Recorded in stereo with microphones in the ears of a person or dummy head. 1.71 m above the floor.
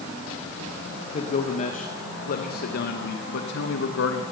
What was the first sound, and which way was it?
A man speaking, 30° left (ahead or behind).